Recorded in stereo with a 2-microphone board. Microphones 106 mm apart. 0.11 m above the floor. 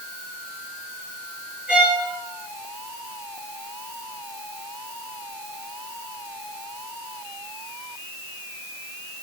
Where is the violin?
10° right (ahead or behind), 7 m.